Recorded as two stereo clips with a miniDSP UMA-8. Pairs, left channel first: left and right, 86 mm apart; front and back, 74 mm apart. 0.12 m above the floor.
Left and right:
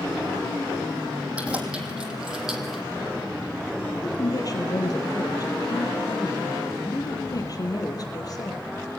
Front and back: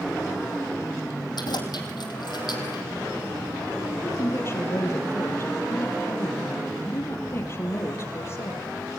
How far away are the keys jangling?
About 4 m.